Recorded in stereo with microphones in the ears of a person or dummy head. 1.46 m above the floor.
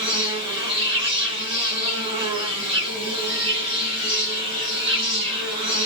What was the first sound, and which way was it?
An insect, 30° right (ahead or behind).